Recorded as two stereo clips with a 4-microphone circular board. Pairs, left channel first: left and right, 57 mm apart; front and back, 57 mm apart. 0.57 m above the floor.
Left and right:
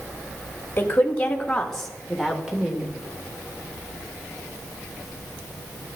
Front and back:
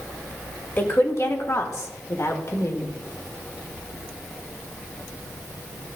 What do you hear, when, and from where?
0.8 s a woman speaking: 45° left, 1.3 m; by 2.9 s 20° right, 1.7 m